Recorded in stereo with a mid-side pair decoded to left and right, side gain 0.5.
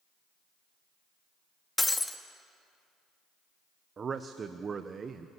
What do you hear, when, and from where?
1.8 s breaking glass: 15° left, 1.6 m
4.0 s a man speaking: 40° right, 1.0 m